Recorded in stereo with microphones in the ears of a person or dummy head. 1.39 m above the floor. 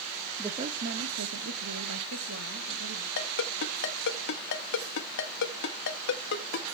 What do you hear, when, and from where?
0.4 s a woman speaking: 10° right (ahead or behind), 0.6 m; by 3.1 s 80° right, 2.5 m
3.2 s a ringtone: 65° left (ahead or behind), 1.2 m